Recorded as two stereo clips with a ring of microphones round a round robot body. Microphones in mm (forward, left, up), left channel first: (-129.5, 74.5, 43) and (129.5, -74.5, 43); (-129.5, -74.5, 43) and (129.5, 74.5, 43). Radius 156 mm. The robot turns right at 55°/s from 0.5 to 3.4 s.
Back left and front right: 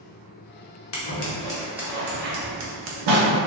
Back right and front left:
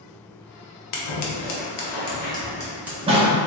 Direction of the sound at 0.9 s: 160° right.